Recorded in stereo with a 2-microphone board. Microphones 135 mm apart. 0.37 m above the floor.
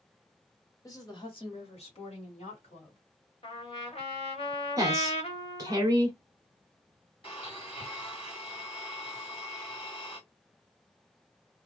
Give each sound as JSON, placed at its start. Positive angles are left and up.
{"t": 0.8, "sound": "a woman speaking", "side_deg": 25, "distance_m": 1.3}
{"t": 3.4, "sound": "a trumpet", "side_deg": 45, "distance_m": 0.9}
{"t": 4.8, "sound": "a woman speaking", "side_deg": -25, "distance_m": 1.2}
{"t": 7.2, "sound": "a blender", "side_deg": 45, "distance_m": 2.0}